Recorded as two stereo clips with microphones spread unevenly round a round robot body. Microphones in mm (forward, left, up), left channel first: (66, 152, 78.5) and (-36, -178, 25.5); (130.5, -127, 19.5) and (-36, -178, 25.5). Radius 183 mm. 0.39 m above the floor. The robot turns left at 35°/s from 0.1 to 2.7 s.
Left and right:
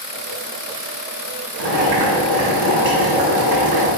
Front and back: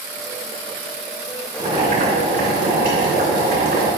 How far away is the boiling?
About 3 m.